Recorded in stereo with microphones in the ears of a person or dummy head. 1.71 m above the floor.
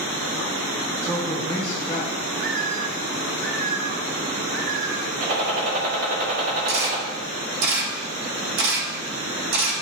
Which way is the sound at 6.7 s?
60° right (ahead or behind).